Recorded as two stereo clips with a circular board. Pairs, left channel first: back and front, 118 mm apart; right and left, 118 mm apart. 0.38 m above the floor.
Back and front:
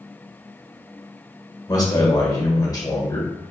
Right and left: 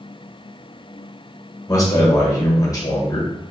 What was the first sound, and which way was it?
A man speaking, 135° right.